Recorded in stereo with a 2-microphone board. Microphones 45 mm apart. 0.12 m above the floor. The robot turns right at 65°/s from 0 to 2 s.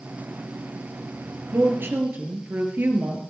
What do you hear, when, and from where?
1.5 s a woman speaking: 95° right, 2.5 m; by 3.2 s 65° right, 2.5 m